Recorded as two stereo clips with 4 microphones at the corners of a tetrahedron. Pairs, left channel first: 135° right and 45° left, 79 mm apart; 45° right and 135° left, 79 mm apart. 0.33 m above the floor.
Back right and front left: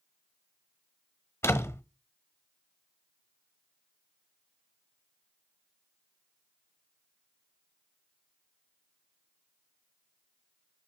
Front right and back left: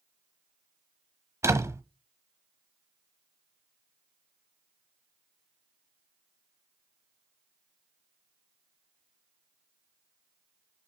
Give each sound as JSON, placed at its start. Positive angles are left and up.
{"t": 1.4, "sound": "a door slam", "azimuth_deg": 175, "distance_m": 1.0}